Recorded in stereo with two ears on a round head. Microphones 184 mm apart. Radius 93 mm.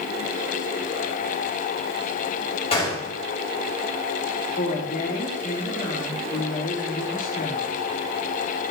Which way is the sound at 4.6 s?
45° left (ahead or behind).